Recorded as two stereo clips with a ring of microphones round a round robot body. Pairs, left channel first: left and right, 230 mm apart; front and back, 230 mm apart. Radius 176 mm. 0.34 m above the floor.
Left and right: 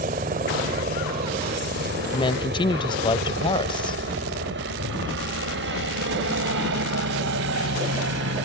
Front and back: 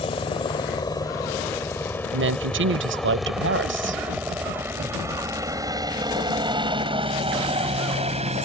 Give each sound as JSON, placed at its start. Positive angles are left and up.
{"t": 0.0, "sound": "a helicopter", "azimuth_deg": -55}
{"t": 2.1, "sound": "a woman speaking", "azimuth_deg": 160}